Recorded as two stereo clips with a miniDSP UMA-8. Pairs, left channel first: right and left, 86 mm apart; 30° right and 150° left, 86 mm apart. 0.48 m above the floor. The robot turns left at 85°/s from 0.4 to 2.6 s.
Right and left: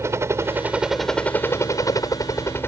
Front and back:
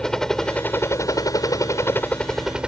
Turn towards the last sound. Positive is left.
turn(degrees=-135)